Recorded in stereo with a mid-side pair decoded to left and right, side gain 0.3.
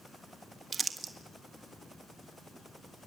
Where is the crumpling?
55° right, 1.5 m.